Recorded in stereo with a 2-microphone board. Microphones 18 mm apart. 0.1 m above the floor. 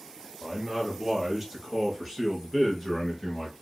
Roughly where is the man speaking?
Centre.